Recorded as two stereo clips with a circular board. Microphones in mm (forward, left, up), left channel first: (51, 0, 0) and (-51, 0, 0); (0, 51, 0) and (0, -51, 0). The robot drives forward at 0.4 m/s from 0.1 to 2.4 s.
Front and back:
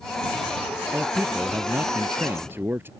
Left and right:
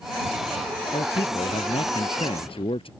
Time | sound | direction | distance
0.9 | a man speaking | 105° left | ?